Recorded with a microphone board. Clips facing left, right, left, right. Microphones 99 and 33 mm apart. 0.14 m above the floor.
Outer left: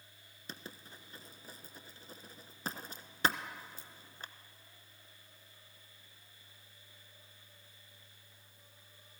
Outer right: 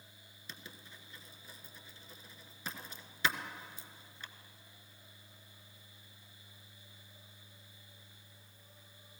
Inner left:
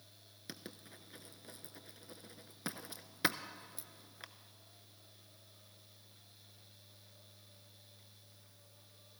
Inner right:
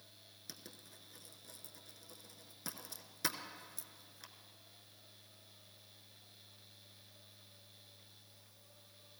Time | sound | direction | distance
0.5 | writing | 40° left (ahead or behind) | 0.6 m